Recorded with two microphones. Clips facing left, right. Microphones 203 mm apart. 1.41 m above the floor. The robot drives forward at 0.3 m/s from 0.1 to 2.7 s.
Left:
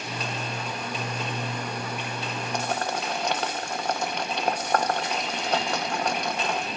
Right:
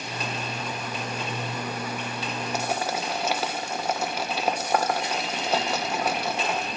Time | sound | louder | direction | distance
2.5 | boiling | even | 5° right (ahead or behind) | 1.3 m